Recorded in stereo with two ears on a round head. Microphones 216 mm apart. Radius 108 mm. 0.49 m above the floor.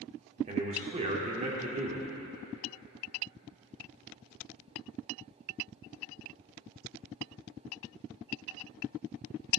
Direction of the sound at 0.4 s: 30° right (ahead or behind).